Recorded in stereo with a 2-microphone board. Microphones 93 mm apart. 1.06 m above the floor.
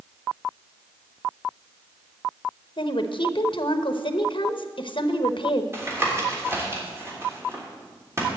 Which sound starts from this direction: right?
Tapping, at 5.7 s.